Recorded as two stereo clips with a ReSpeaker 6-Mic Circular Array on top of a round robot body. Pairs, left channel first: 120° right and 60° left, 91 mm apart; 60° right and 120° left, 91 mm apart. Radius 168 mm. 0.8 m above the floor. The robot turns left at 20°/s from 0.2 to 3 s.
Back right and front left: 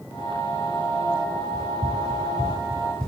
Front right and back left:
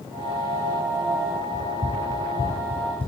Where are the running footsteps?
75° left, 0.7 m; by 3.1 s 45° right, 1.5 m.